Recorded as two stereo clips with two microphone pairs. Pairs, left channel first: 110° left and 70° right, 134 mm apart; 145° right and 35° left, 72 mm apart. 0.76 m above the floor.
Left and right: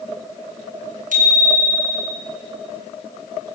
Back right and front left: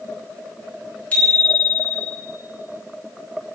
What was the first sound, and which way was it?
A bicycle bell, 75° right.